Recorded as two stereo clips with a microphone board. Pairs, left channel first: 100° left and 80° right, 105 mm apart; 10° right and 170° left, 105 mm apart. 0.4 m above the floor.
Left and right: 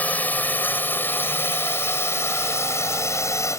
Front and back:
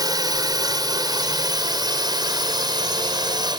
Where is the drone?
165° left; by 3.6 s 150° left.